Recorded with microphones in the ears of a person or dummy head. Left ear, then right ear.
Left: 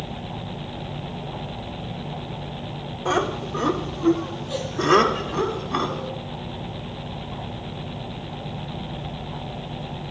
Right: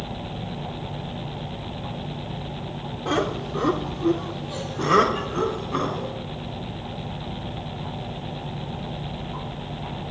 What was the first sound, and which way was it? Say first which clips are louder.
Laughter: left 2 dB; 60° left (ahead or behind).